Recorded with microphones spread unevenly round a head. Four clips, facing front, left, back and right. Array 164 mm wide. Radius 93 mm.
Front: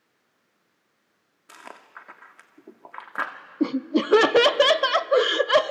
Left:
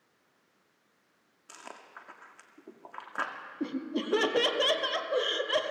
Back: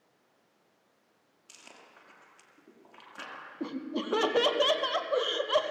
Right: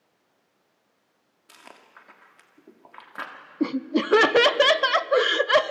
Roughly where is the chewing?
Ahead.